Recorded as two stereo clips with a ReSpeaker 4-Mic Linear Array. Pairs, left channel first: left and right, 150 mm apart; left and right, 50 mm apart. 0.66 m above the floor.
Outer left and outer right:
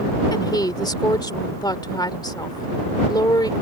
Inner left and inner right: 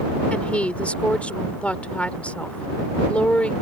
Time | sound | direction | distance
0.3 | a woman speaking | 25° left (ahead or behind) | ?